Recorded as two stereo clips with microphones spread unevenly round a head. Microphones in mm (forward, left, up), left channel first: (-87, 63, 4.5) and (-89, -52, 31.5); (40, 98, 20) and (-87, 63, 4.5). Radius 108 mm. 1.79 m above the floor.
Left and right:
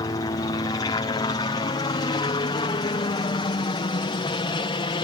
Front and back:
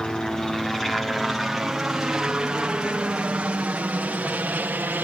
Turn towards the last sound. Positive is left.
turn(degrees=120)